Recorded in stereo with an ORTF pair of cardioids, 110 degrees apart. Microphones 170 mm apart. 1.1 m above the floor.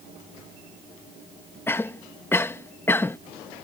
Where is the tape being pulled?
No tape being pulled in this recording.